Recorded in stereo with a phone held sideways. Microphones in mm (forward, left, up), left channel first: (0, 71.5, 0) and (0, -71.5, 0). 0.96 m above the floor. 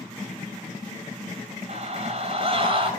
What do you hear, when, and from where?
1.7 s a scream: 50° right (ahead or behind), 6.5 m; by 2.9 s 40° right (ahead or behind), 6 m